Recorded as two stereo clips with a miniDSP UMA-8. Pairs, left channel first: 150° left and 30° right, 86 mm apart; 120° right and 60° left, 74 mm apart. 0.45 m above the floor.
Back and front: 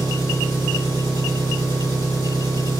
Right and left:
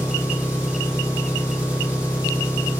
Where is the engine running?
10° right, 3.5 m.